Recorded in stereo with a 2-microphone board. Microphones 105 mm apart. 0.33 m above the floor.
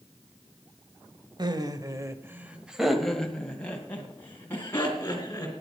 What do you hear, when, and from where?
1.4 s laughter: 45° right (ahead or behind), 1.2 m; by 5.5 s 25° left (ahead or behind), 3 m